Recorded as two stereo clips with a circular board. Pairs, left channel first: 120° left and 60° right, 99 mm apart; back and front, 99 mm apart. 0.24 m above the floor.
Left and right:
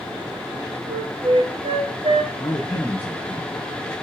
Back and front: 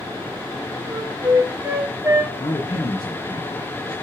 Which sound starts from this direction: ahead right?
A flute, at 0.9 s.